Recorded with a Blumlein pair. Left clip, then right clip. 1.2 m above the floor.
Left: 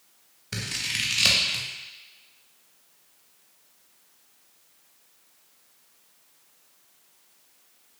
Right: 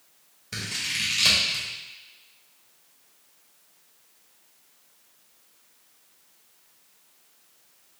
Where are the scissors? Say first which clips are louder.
Even; 15° left, 1.0 m.